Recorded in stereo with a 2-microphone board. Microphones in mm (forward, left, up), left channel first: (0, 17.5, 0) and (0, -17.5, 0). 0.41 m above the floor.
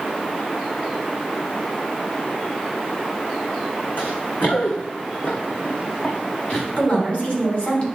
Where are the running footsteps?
65° left (ahead or behind), 2.0 m; by 6.7 s 35° left (ahead or behind), 2.5 m.